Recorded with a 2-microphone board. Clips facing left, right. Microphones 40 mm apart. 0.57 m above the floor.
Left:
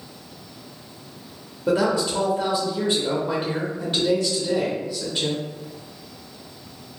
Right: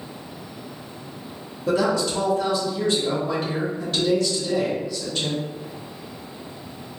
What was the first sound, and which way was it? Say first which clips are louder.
A woman speaking: even; 15° left (ahead or behind).